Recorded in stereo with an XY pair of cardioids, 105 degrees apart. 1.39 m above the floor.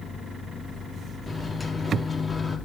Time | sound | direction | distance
1.3 | a microwave | 15° left | 2.5 m